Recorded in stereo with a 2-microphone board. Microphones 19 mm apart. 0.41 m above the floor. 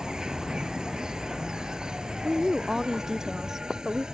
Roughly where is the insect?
Right.